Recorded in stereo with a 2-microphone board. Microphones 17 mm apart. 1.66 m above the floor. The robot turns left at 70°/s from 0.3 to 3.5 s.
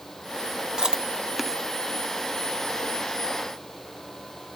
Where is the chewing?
55° right (ahead or behind), 0.5 m; by 1.6 s centre (ahead or behind), 0.5 m.